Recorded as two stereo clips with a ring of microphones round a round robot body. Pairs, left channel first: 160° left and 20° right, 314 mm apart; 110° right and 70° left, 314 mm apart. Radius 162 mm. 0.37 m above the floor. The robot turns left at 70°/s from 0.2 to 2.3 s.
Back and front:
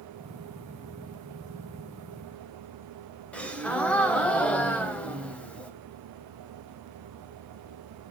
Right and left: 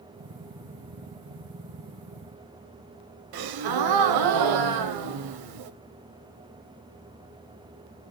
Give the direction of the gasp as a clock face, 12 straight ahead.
10 o'clock.